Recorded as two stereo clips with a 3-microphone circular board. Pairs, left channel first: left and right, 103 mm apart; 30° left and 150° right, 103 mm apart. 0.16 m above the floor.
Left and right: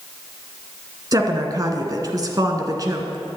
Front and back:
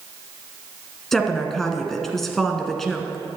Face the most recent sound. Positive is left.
turn(degrees=-55)